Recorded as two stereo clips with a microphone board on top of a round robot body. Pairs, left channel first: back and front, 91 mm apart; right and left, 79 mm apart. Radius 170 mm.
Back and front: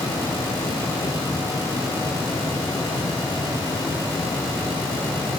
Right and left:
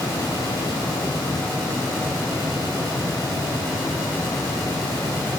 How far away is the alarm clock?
I don't hear an alarm clock.